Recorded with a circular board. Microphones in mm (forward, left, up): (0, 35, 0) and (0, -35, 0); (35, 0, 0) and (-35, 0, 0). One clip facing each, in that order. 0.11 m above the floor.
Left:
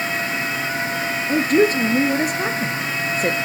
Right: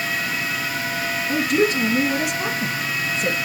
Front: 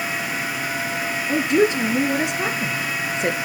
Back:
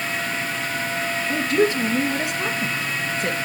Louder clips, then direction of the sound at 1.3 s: Left 3 dB, front 2 dB; 60° left.